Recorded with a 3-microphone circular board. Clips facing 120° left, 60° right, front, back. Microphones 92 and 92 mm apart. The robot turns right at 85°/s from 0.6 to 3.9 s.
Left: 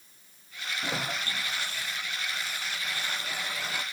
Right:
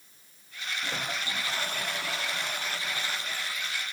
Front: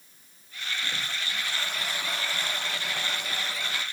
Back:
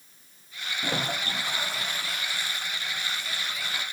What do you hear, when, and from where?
0.8 s a toilet flushing: 175° right; by 3.8 s 85° left